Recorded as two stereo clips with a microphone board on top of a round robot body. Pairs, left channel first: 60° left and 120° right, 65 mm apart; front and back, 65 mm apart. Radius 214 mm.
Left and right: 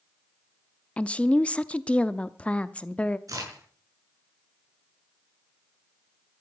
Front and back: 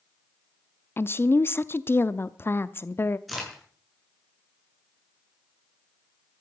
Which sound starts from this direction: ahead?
A woman speaking, at 1.0 s.